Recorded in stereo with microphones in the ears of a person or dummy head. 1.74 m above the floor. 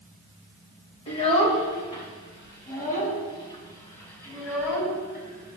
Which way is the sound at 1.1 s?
35° left (ahead or behind).